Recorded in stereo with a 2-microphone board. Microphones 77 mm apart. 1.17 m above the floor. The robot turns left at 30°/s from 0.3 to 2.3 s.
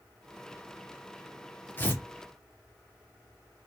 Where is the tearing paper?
25° left (ahead or behind), 0.9 m; by 2.0 s 30° left (ahead or behind), 0.9 m.